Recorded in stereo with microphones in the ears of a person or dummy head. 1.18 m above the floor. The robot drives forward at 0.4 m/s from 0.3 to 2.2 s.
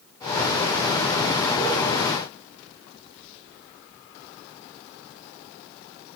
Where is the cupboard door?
I don't hear a cupboard door.